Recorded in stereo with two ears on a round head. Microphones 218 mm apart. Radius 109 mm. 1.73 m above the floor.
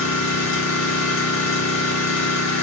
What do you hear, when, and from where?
0.0 s an engine running: 75° left (ahead or behind), 1.6 m